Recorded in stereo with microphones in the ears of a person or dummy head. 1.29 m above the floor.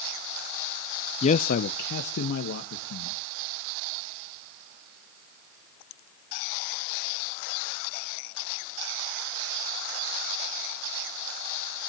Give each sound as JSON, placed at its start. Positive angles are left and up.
{"t": 1.2, "sound": "a man speaking", "side_deg": 35, "distance_m": 0.6}